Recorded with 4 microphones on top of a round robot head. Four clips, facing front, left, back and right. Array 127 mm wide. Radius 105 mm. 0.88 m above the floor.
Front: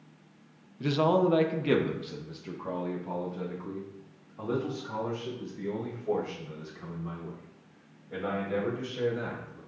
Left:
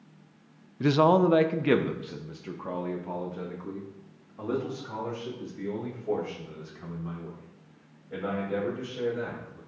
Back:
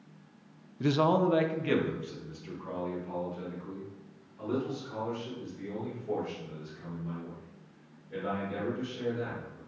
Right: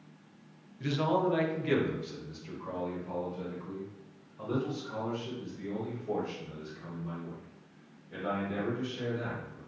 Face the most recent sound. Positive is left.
turn(degrees=45)